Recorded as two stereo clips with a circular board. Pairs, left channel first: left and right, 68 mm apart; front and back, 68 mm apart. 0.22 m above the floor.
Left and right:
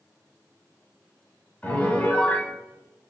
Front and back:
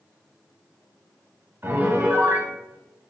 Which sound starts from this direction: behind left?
A piano, at 1.6 s.